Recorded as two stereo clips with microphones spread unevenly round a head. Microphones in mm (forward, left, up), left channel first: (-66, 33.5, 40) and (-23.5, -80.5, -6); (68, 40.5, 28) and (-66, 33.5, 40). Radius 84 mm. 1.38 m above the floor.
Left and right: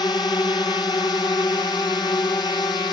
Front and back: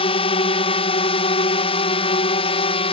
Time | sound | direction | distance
0.0 | a drone | 40° left | ?